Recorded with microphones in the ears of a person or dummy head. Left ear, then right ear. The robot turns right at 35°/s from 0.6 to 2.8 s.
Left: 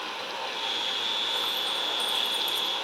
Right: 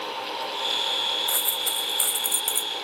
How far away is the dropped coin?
About 1.1 m.